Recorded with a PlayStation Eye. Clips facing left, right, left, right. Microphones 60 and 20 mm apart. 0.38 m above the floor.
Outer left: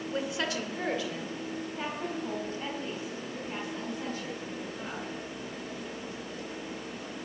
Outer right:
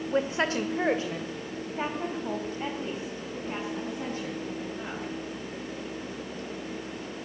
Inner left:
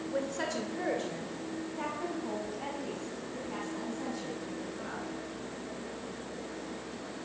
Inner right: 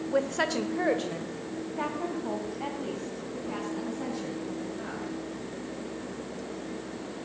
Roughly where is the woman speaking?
Right.